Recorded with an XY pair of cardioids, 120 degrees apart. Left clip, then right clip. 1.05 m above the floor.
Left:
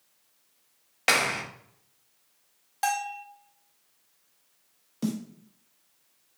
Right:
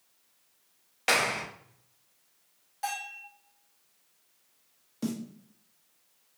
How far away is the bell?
About 0.9 m.